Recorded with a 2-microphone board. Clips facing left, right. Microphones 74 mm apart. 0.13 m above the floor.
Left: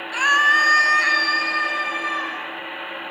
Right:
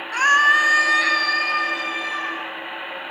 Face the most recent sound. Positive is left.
turn(degrees=30)  # may be behind; listen again after turning